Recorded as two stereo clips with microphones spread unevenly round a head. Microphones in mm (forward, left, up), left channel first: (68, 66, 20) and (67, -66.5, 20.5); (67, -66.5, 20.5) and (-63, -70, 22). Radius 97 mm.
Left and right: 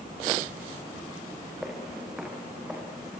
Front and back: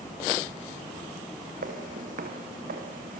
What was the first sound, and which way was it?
Footsteps, straight behind.